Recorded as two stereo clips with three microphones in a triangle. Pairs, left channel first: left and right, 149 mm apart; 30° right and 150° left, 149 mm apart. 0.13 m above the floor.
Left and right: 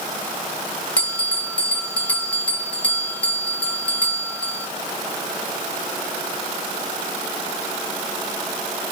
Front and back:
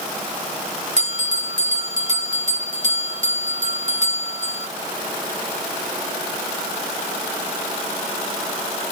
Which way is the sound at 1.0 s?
170° left.